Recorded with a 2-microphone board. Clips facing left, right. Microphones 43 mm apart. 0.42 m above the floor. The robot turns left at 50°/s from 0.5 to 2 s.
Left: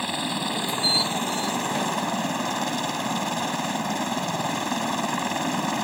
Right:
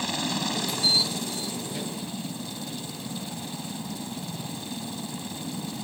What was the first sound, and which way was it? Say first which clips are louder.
A helicopter: left 2 dB; 165° left.